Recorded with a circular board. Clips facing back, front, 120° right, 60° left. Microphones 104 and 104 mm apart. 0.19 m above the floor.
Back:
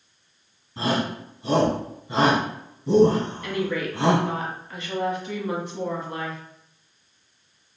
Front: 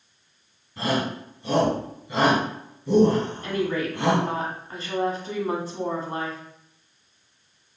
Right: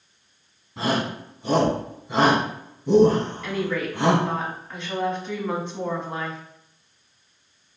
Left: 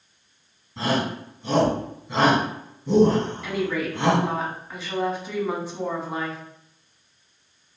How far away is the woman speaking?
About 1.2 m.